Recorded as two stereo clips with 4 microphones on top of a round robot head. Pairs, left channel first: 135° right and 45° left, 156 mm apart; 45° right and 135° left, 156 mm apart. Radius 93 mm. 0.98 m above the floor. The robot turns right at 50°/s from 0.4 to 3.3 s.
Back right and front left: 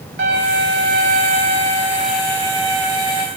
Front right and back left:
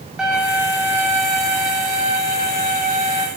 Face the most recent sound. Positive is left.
turn(degrees=-165)